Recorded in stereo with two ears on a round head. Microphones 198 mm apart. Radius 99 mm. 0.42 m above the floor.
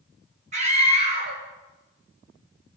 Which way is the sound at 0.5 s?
35° right (ahead or behind).